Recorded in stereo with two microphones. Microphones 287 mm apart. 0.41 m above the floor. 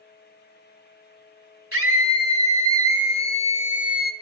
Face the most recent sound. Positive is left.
turn(degrees=-30)  # may be behind; listen again after turning